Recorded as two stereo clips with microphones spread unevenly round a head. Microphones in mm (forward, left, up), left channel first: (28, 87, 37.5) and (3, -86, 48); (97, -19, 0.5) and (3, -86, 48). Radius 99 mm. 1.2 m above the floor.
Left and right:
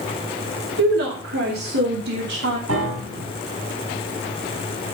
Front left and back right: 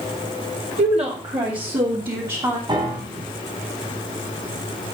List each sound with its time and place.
0.8 s a woman speaking: 110° right, 2.5 m; by 2.6 s 90° right, 3 m
2.7 s a piano: 100° right, 5 m